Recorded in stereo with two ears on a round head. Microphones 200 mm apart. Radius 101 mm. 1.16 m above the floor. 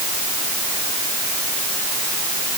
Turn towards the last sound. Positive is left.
No sound to turn to.